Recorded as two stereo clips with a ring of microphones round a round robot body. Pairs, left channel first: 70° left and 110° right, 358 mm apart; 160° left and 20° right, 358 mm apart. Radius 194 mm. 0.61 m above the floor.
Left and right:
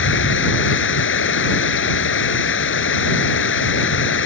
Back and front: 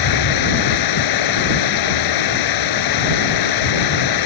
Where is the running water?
125° left.